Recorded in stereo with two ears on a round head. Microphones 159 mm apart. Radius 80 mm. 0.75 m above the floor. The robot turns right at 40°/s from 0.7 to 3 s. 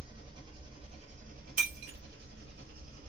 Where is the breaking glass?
45° right (ahead or behind), 1.0 m; by 2.0 s 50° right (ahead or behind), 1.0 m.